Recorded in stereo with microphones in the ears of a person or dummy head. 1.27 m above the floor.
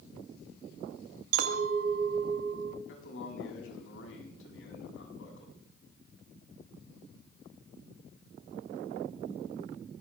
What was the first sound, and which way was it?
A clink, 75° right (ahead or behind).